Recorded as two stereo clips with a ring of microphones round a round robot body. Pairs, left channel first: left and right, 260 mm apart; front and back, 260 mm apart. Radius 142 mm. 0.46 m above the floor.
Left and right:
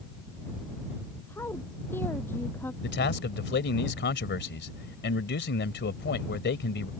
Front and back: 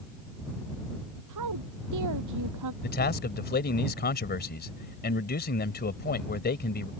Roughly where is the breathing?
No breathing in this recording.